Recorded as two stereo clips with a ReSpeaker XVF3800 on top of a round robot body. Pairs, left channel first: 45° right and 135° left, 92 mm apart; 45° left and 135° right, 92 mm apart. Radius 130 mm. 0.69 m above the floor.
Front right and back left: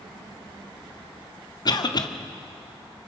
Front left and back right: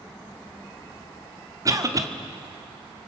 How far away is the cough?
About 1.8 m.